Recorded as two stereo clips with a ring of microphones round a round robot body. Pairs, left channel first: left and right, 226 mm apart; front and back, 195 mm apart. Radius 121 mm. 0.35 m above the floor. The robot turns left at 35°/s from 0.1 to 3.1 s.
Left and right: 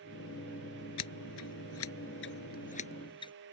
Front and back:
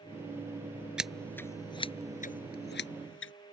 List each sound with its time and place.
1.0 s scissors: 95° left; by 3.3 s 20° left